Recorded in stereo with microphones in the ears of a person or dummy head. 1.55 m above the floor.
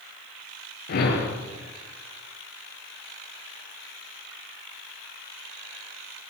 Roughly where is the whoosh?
Left.